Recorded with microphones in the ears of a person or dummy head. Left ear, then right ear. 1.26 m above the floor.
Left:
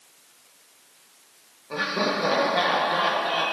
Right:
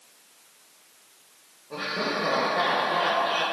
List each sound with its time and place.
1.7 s laughter: 50° left (ahead or behind), 1.0 m; by 3.4 s 5° right (ahead or behind), 0.8 m